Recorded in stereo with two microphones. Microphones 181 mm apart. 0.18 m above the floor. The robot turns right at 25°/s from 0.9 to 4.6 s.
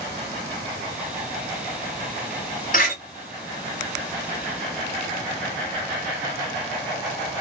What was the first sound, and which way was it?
A door slam, 50° left (ahead or behind).